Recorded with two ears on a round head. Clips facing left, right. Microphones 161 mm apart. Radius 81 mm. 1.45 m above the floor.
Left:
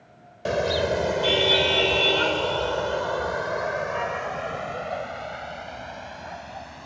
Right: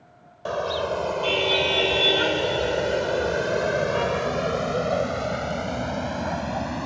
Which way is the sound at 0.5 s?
25° left (ahead or behind).